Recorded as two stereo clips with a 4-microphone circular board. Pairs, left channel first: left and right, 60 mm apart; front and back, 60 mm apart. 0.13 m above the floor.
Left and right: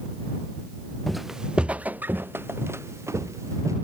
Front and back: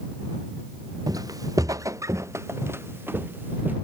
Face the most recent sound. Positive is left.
turn(degrees=-120)